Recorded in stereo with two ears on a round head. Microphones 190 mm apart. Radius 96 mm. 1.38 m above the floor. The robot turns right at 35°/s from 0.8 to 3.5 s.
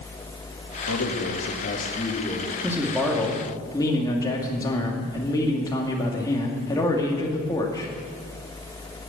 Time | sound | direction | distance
0.9 | a man speaking | 105° left | 2.5 m
2.6 | a man speaking | 15° right | 2.5 m